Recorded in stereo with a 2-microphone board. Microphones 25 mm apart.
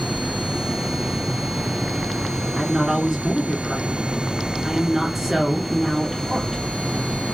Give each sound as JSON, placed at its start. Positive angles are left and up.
{"t": 2.5, "sound": "a woman speaking", "side_deg": -10, "distance_m": 2.5}